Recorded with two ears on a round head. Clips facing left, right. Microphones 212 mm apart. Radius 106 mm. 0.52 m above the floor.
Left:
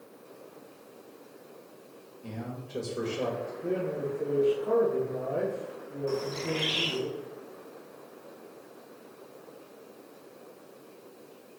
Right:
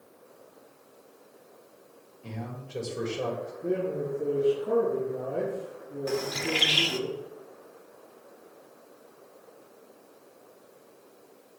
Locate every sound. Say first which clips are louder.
2.2 s a man speaking: even; 5° left (ahead or behind), 1.8 m
3.6 s a man speaking: right 2 dB; centre (ahead or behind), 4 m
6.1 s a bird: right 1 dB; 80° right, 1.1 m